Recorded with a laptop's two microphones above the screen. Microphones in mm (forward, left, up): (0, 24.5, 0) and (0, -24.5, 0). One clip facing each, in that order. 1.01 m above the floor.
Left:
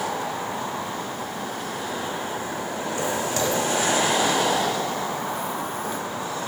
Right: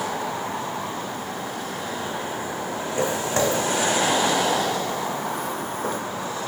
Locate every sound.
3.0 s footsteps: 30° right (ahead or behind), 3.5 m; by 6.0 s 40° right (ahead or behind), 2.5 m